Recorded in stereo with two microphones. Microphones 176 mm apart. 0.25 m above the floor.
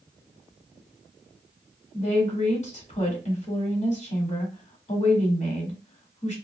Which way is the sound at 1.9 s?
45° left (ahead or behind).